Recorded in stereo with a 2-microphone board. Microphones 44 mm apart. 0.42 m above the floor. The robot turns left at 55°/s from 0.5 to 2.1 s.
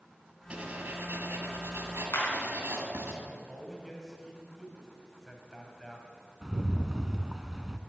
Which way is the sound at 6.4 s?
10° right (ahead or behind).